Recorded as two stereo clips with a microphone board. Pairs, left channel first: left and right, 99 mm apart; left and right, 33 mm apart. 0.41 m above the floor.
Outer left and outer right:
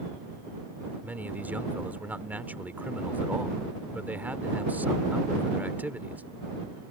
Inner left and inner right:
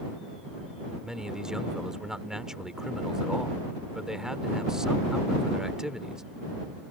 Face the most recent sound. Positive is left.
turn(degrees=-20)  # may be behind; listen again after turning